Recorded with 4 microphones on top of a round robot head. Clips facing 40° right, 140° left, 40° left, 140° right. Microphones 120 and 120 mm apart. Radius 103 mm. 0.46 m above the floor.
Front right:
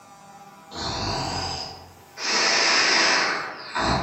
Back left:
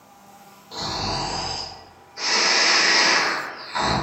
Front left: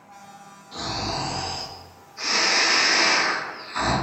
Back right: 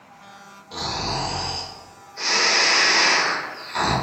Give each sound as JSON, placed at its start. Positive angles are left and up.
{"t": 0.7, "sound": "snoring", "azimuth_deg": -160, "distance_m": 0.9}